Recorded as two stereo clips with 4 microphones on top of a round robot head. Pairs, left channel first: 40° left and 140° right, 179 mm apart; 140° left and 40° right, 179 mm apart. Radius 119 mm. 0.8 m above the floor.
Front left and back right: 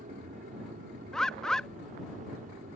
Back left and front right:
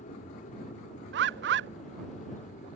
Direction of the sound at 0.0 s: Straight behind.